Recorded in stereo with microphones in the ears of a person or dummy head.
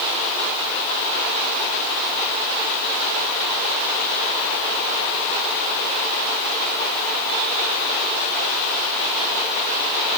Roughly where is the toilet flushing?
I don't hear a toilet flushing.